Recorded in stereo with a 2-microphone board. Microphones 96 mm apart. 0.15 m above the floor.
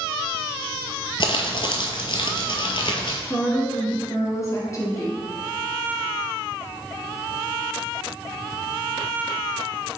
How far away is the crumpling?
About 0.7 m.